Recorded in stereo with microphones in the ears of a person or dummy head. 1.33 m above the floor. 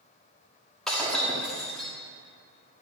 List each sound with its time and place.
0.9 s breaking glass: 5° left (ahead or behind), 1.5 m